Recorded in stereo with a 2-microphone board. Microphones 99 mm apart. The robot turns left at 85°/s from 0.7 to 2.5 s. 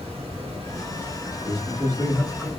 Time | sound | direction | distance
0.0 | running water | 105° right | 1.2 m
1.3 | a man speaking | 80° right | 1.4 m